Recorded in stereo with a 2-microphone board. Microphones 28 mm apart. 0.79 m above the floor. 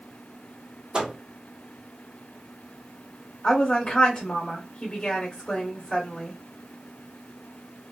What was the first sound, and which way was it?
A microwave, 30° right (ahead or behind).